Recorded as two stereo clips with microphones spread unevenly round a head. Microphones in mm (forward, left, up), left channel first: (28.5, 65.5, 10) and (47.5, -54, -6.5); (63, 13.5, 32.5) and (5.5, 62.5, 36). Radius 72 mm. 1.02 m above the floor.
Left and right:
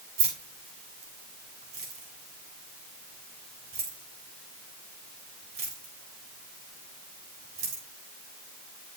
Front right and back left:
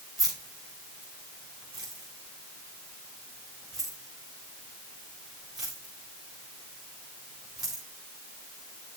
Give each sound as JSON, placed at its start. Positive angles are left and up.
{"t": 0.2, "sound": "keys jangling", "azimuth_deg": -130, "distance_m": 3.5}